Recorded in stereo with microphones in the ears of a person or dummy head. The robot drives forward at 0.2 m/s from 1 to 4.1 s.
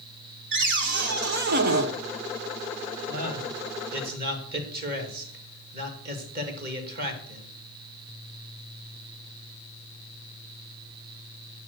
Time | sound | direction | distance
0.5 | a cupboard door | 60° right (ahead or behind) | 0.8 m
3.1 | a man speaking | 50° right (ahead or behind) | 2.5 m